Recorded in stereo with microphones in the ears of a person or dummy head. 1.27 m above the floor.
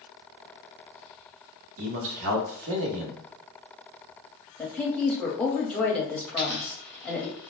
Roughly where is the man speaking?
Right.